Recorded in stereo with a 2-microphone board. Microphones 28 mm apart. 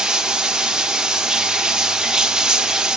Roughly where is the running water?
Right.